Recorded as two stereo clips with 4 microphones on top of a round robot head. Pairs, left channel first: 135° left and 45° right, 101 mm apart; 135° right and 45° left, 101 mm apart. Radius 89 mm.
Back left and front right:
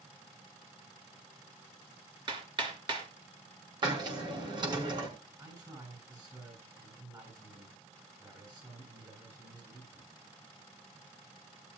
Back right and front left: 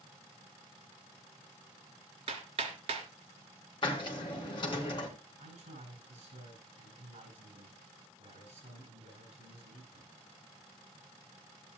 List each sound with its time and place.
2.3 s hammering: 5° left, 3 m
3.8 s a hiss: 90° right, 4 m
5.4 s a man speaking: 10° left, 9 m